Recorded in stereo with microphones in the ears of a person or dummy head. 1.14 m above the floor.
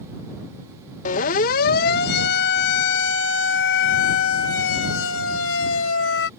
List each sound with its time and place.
1.1 s a siren: 45° left (ahead or behind); by 6.3 s 75° left (ahead or behind)